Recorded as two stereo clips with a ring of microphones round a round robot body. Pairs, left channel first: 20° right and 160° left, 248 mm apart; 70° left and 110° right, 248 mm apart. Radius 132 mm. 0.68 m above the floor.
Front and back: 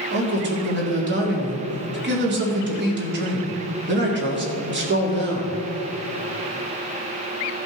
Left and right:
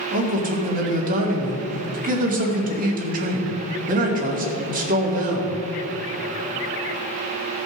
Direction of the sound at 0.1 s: 165° right.